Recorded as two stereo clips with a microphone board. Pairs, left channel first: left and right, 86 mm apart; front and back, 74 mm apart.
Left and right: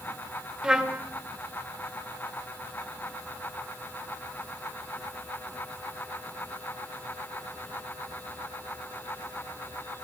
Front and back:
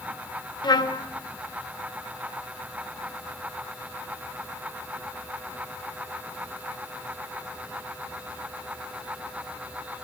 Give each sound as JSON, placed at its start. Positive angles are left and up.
{"t": 0.6, "sound": "a trumpet", "azimuth_deg": -10, "distance_m": 0.6}